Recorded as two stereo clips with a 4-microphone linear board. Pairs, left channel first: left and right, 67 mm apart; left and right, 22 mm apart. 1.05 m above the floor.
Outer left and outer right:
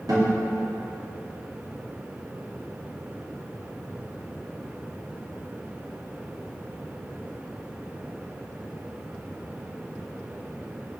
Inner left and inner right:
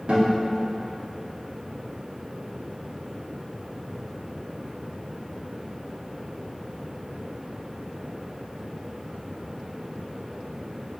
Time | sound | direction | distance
0.1 | a guitar | 65° right (ahead or behind) | 2 m